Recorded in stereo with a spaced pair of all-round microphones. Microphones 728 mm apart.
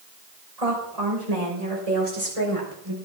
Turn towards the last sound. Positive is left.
turn(degrees=-45)  # may be behind; listen again after turning